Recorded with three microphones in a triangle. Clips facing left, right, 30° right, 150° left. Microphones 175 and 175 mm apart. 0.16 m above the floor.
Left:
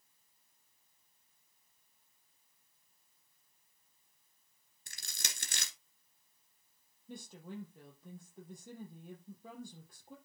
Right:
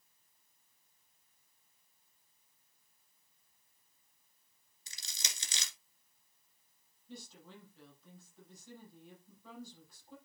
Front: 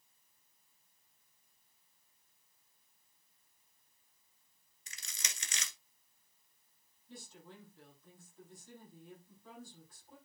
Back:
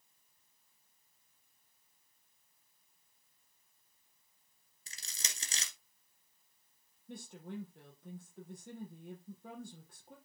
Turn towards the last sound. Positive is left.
turn(degrees=125)